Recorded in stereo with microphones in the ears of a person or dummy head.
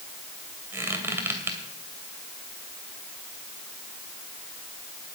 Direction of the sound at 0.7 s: 15° right (ahead or behind).